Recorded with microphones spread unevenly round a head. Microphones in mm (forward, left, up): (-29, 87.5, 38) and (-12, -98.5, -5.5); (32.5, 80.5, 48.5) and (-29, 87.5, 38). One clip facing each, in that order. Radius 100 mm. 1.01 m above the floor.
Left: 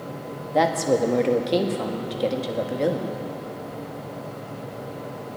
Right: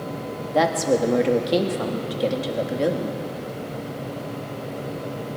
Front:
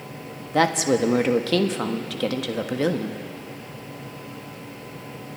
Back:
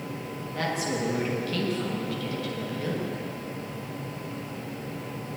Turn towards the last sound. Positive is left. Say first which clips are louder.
# even, front 10 dB
turn(degrees=0)